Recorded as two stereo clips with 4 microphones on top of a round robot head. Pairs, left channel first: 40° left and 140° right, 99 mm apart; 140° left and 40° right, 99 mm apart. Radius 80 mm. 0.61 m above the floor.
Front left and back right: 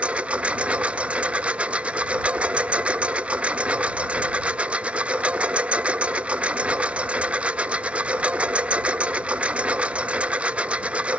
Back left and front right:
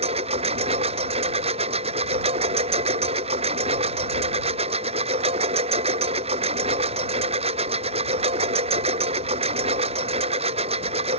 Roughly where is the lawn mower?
Ahead right.